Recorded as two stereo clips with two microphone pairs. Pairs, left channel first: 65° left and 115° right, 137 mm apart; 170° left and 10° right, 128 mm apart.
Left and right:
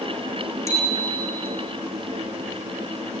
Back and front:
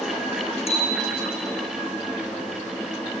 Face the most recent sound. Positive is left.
turn(degrees=130)